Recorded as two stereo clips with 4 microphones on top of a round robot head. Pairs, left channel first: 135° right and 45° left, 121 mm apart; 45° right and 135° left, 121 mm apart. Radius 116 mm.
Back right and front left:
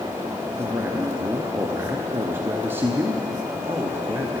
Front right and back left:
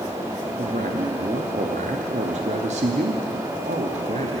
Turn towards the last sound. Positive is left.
turn(degrees=115)